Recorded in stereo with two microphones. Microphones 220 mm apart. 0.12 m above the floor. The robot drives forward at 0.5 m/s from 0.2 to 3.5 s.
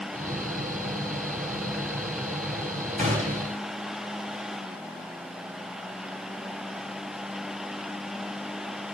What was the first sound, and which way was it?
A gunshot, 35° right (ahead or behind).